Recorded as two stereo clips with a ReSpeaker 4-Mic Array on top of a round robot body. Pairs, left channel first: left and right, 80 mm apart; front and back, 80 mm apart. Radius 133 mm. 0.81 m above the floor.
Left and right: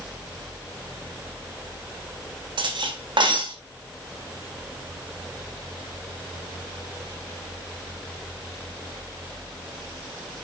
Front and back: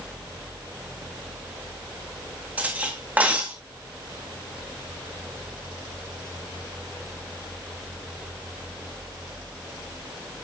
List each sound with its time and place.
2.6 s cutlery clinking: 110° right, 3 m